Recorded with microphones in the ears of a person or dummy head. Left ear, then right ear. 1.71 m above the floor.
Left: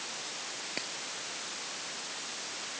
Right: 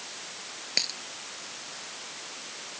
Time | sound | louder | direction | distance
0.8 | a dropped coin | right 13 dB | 80° right | ?